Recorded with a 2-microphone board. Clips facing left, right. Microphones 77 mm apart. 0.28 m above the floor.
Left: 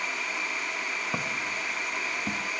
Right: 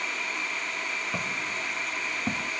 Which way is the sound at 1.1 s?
25° left (ahead or behind).